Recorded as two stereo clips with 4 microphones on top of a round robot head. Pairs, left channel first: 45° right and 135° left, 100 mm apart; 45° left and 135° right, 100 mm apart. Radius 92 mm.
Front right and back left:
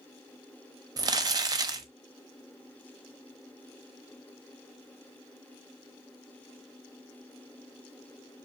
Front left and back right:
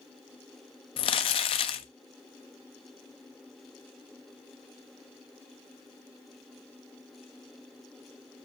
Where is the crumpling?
80° left, 0.7 m.